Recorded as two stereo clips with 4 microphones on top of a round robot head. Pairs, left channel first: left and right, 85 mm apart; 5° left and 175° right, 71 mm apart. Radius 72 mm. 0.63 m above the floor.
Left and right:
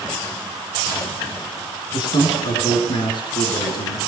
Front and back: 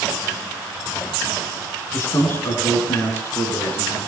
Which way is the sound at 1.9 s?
60° left.